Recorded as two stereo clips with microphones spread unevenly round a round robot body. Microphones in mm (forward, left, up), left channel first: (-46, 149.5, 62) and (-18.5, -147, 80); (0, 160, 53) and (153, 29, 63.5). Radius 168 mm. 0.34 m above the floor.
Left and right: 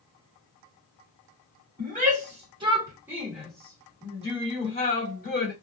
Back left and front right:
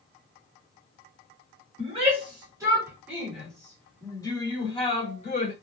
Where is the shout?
55° right, 1.7 m; by 5.5 s 125° left, 1.9 m.